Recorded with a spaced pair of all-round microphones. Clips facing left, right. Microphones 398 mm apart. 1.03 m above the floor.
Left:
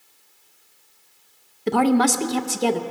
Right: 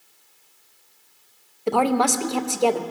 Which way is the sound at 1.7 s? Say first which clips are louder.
Left 3 dB; 30° left (ahead or behind).